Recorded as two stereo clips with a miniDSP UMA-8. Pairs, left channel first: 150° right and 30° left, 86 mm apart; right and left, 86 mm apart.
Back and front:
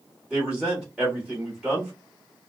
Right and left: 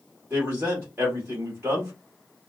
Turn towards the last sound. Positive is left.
turn(degrees=105)